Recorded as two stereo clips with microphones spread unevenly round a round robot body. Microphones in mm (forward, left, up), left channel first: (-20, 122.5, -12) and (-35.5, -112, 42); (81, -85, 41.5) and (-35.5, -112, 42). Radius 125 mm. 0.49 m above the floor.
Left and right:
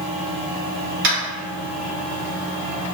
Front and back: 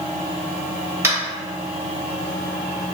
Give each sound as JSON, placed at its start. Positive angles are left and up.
{"t": 1.0, "sound": "tapping", "azimuth_deg": -115, "distance_m": 1.4}